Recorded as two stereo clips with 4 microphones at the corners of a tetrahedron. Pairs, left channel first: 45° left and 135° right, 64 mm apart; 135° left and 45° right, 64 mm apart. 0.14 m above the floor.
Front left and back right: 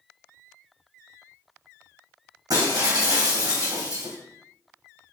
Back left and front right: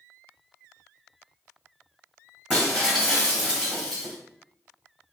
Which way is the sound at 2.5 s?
120° right.